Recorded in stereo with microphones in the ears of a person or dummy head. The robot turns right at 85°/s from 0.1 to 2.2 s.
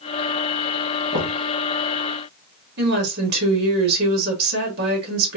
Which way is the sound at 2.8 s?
60° right (ahead or behind).